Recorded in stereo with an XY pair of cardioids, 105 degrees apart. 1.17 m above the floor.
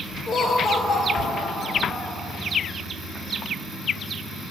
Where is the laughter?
50° left, 5 m; by 2.2 s 60° left, 5.5 m.